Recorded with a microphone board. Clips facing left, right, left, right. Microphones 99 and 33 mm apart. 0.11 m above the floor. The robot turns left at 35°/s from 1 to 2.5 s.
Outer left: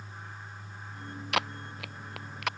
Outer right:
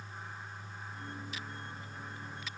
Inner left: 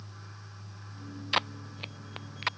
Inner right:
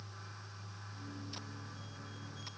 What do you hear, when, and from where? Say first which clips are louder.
1.3 s tape being pulled: outer left 11 dB, inner left 17 dB; 70° left (ahead or behind); by 2.5 s 65° left (ahead or behind)